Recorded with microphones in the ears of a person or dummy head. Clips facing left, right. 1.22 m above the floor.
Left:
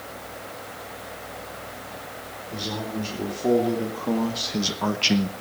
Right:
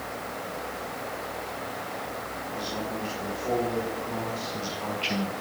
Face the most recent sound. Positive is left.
turn(degrees=30)  # may be behind; listen again after turning